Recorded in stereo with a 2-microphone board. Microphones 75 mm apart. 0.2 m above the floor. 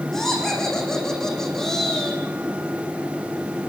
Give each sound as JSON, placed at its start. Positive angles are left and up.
{"t": 0.1, "sound": "laughter", "side_deg": 5, "distance_m": 9.0}